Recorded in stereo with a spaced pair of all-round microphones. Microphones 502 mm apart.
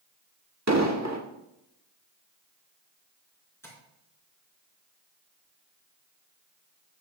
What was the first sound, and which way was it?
An explosion, 30° right (ahead or behind).